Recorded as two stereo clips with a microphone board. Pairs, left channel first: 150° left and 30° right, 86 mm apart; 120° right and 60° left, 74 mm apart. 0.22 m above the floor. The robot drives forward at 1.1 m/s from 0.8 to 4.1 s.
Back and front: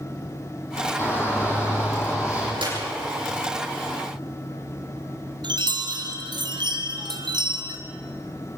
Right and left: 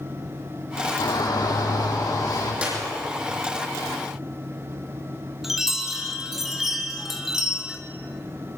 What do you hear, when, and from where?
1.0 s a shout: 150° right, 7.5 m; by 2.5 s 155° right, 9 m
2.6 s a clap: 10° right, 10 m
5.4 s a chime: 25° right, 2.5 m